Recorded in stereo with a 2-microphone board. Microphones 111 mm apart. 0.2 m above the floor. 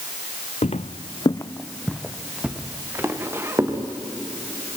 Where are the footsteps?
80° left, 0.9 m; by 3.8 s 25° right (ahead or behind), 3 m.